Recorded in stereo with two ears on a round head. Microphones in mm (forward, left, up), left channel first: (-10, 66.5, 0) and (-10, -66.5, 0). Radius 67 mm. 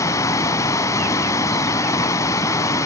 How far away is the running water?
About 0.9 m.